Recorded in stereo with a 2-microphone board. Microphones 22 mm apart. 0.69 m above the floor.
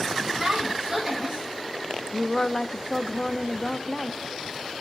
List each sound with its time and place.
0.4 s a woman speaking: 15° right (ahead or behind), 4 m
2.1 s a woman speaking: 30° left (ahead or behind), 0.6 m